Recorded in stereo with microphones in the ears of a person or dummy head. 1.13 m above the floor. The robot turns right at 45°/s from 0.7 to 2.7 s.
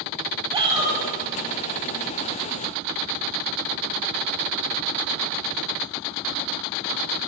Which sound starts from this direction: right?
A shout, at 0.5 s.